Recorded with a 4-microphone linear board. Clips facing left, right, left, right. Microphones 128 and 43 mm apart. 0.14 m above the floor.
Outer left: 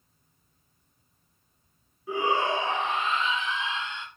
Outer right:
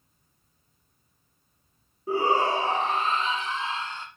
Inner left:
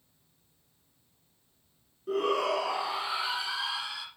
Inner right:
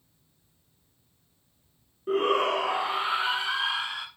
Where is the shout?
40° right (ahead or behind), 1.3 m.